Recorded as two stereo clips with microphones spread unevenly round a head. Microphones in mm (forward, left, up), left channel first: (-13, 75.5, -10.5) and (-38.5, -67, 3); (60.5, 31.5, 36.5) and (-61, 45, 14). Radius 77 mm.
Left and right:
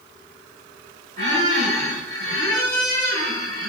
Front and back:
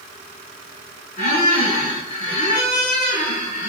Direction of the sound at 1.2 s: 50° right.